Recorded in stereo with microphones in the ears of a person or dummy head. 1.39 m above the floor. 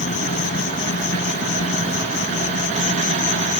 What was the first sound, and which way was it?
An insect, 50° left (ahead or behind).